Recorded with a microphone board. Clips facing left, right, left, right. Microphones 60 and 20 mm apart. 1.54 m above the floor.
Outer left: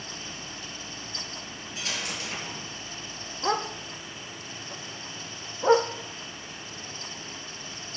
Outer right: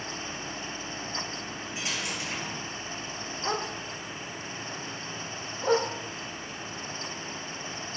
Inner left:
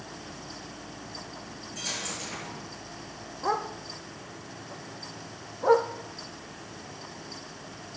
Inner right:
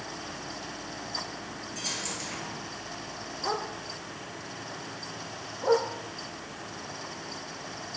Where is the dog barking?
25° left (ahead or behind), 1.0 m.